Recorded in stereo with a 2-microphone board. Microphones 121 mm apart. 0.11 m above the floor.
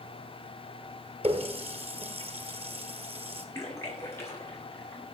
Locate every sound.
1.2 s a running tap: 55° right (ahead or behind), 1.5 m
3.5 s a splash: 20° left (ahead or behind), 6.5 m